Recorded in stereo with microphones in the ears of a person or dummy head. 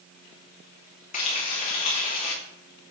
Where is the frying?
35° left (ahead or behind), 1.7 m.